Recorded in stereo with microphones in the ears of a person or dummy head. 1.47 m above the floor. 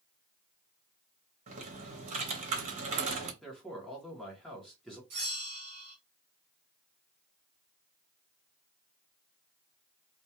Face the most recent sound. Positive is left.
turn(degrees=-30)  # may be behind; listen again after turning